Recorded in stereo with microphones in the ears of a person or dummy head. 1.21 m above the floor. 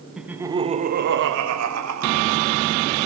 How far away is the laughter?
About 1.0 m.